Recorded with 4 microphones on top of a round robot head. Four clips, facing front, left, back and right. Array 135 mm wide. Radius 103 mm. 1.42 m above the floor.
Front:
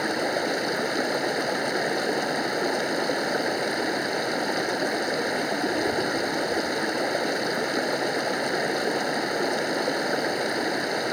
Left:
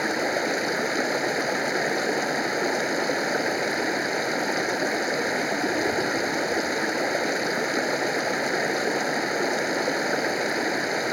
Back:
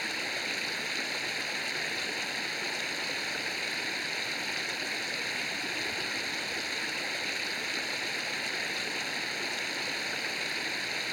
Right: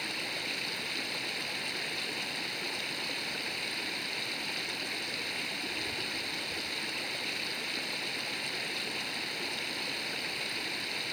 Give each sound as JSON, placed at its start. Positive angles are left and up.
{"t": 0.0, "sound": "running water", "azimuth_deg": 45}